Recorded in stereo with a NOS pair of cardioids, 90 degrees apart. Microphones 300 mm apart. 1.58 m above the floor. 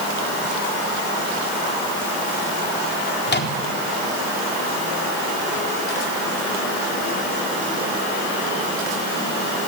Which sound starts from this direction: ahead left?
A microwave, at 3.3 s.